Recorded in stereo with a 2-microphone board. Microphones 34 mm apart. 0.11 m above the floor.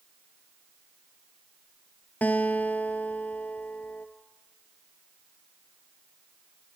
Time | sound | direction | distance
2.2 | a guitar | 55° left (ahead or behind) | 1.2 m